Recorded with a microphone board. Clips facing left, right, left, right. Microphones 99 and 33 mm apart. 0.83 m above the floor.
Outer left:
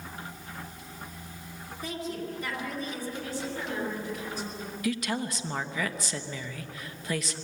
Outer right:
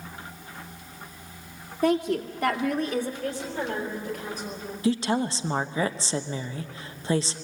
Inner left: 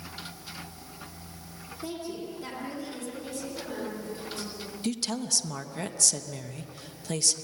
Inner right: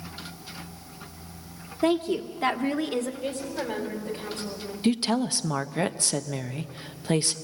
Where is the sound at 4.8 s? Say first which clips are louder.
Outer right 6 dB, inner right 7 dB; 30° right (ahead or behind), 0.9 m.